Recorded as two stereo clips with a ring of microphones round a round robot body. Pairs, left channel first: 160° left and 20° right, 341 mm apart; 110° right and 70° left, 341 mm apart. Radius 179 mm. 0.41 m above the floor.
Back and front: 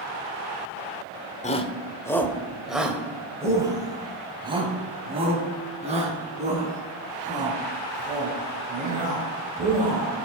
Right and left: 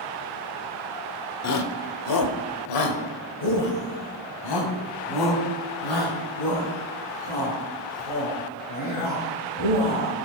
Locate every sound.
1.4 s a shout: 135° right, 1.1 m; by 10.1 s 90° right, 6 m